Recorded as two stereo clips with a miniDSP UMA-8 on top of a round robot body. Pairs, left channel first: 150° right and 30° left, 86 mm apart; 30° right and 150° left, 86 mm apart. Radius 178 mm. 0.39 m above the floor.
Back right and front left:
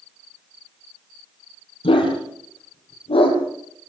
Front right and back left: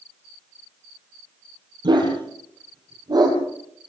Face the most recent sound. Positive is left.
turn(degrees=-165)